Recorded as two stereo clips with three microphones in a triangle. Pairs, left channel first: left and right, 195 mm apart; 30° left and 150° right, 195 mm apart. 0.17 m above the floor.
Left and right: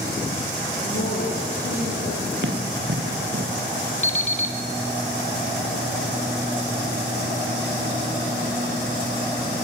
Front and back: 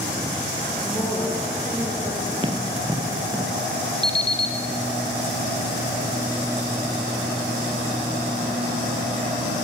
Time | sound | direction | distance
0.8 | a woman speaking | 105° left | 7 m
2.4 | running footsteps | 85° right | 2.5 m
4.0 | an alarm clock | 140° left | 2.5 m